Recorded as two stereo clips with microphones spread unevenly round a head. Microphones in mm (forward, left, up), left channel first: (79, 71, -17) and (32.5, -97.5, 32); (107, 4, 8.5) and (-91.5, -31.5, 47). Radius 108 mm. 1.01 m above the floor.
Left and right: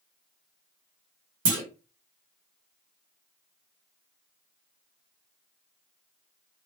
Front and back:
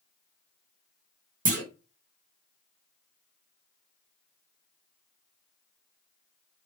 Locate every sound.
1.4 s a clunk: 115° right, 1.1 m